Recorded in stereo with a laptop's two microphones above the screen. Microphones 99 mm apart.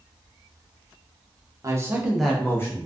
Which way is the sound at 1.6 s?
35° right (ahead or behind).